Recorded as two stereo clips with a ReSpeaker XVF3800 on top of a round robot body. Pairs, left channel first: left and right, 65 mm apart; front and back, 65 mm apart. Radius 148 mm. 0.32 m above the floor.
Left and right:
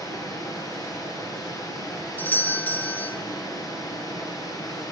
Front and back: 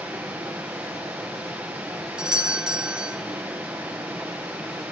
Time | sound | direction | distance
0.0 | running water | 120° left | 4 m
2.2 | a doorbell | 115° left | 1.5 m